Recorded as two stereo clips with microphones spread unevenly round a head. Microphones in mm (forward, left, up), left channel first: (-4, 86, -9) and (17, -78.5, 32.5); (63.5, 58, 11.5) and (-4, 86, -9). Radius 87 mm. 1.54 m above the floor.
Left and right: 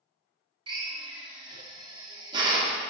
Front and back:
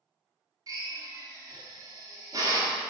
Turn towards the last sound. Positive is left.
turn(degrees=-135)